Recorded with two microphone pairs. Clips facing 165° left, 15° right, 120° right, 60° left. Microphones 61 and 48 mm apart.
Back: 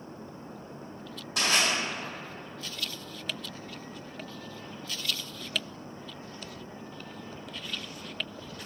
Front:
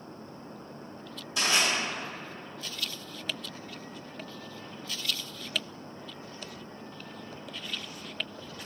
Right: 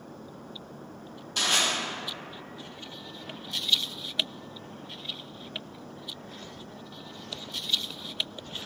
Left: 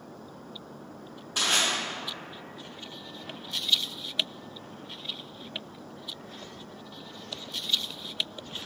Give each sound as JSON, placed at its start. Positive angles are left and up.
{"t": 1.4, "sound": "crushing", "azimuth_deg": 135, "distance_m": 1.8}